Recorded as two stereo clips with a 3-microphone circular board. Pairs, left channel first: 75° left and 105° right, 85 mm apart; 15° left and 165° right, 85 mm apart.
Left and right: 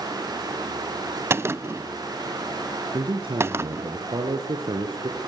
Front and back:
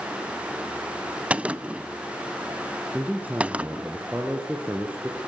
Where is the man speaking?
90° right, 4 m.